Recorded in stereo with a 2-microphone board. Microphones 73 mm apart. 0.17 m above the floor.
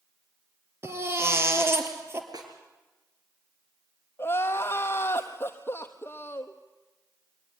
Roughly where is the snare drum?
Right.